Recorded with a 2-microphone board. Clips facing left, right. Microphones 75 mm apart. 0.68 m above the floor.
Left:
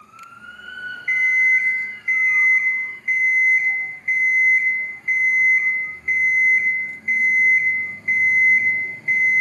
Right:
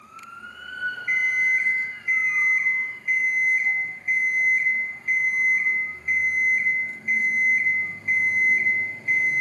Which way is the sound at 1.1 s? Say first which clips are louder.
Left 6 dB; 40° left (ahead or behind).